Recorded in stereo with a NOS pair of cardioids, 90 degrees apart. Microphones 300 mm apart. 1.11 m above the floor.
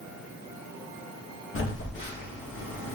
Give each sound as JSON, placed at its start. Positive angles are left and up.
{"t": 1.6, "sound": "a phone buzzing", "azimuth_deg": 45, "distance_m": 1.6}